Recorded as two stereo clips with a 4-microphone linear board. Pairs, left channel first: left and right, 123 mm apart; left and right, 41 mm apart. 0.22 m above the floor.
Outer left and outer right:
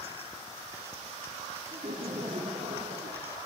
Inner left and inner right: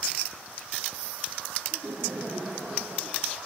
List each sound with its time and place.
1.7 s laughter: 65° right (ahead or behind), 4.5 m